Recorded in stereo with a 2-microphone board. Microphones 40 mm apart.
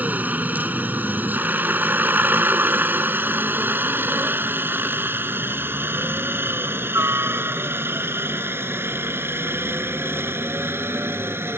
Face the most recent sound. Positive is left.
turn(degrees=-75)  # may be behind; listen again after turning